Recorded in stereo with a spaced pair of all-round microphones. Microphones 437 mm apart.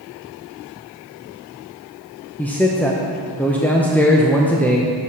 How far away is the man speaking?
About 0.6 m.